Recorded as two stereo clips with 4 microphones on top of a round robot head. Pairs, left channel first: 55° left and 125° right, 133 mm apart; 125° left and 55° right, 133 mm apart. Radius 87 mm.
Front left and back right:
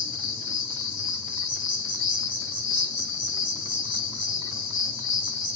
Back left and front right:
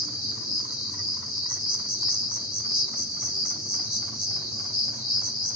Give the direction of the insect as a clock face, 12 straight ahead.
10 o'clock.